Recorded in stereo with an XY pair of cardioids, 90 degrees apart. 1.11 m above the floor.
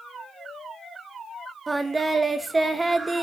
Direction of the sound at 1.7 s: 25° right.